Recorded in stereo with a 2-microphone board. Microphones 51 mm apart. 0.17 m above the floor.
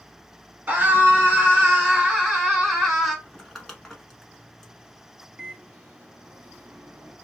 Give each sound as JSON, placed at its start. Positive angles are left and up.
{"t": 0.7, "sound": "a scream", "side_deg": -30, "distance_m": 1.8}
{"t": 3.2, "sound": "crumpling", "side_deg": 10, "distance_m": 0.9}
{"t": 5.4, "sound": "a microwave", "side_deg": -30, "distance_m": 1.1}